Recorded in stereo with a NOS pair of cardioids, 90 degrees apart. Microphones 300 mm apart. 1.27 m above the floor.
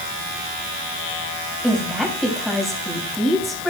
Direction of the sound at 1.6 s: Straight ahead.